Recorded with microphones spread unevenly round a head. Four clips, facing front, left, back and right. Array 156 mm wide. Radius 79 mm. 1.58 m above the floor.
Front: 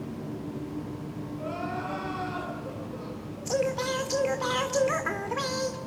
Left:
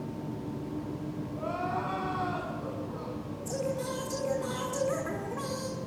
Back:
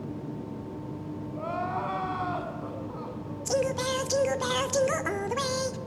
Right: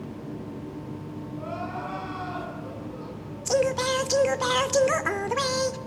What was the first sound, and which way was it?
Crying, 170° left.